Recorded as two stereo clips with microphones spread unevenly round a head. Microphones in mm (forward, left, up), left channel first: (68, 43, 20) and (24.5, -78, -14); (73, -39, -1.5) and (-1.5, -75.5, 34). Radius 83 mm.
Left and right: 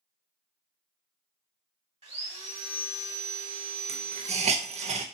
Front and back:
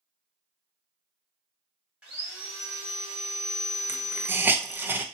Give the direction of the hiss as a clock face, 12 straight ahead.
3 o'clock.